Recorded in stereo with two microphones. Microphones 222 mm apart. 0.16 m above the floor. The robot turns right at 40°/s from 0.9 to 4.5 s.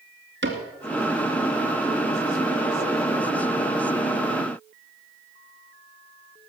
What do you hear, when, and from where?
0.4 s a cupboard door: 50° right (ahead or behind), 2 m